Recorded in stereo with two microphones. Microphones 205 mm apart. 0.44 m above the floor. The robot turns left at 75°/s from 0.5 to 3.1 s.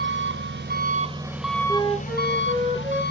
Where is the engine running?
105° right, 0.8 m; by 3.1 s 60° left, 0.8 m.